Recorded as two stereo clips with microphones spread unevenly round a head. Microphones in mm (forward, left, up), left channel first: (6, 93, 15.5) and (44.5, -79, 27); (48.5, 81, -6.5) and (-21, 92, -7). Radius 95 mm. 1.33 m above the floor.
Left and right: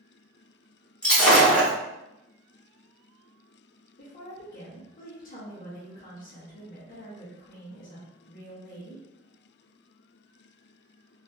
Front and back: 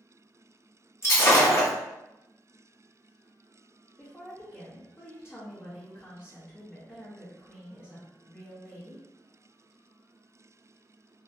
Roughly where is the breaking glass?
Ahead.